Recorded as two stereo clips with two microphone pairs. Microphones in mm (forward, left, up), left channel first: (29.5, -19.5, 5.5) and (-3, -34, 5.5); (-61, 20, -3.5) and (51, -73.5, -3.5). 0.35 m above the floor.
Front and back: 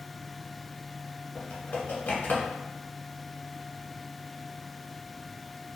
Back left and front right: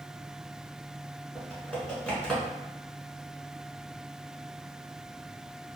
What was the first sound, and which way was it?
Typing on a keyboard, 55° left.